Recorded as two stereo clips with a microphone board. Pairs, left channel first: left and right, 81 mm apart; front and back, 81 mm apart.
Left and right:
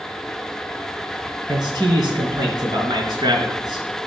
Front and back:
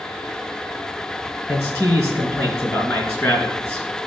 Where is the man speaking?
60° right, 3.5 m.